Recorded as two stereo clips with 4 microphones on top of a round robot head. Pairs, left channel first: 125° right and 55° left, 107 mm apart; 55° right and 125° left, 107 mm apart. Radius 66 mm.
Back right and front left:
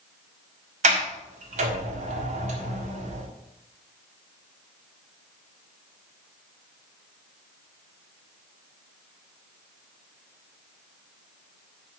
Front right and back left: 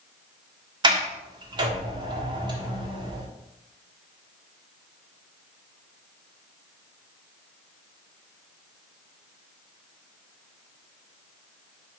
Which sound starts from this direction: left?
A sliding door, at 0.8 s.